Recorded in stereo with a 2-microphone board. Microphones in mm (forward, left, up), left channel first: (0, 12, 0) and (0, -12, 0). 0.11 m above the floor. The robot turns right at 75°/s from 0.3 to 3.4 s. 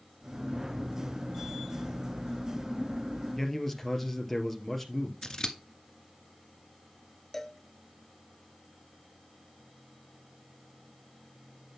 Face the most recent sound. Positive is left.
turn(degrees=15)  # may be behind; listen again after turning